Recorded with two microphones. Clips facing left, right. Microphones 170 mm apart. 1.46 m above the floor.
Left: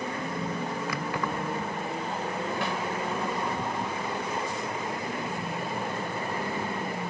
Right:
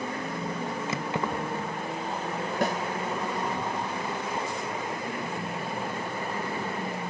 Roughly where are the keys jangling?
Right.